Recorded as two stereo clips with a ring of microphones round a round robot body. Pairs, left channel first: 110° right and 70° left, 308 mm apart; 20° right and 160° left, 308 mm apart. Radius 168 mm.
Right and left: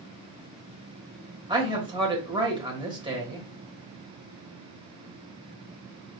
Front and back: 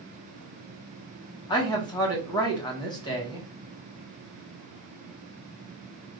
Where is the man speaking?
25° left, 1.4 m.